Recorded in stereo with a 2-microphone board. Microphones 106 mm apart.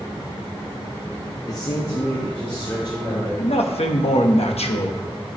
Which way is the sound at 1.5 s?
40° left (ahead or behind).